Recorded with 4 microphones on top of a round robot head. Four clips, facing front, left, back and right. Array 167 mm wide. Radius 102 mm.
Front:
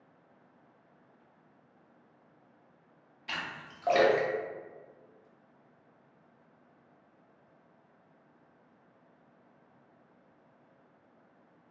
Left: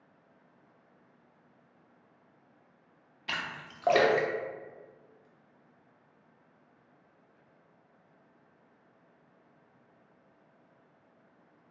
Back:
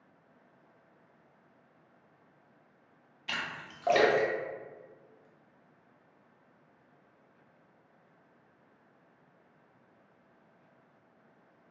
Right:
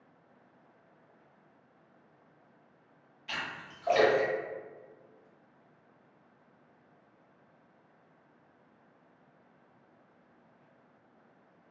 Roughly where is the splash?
Left.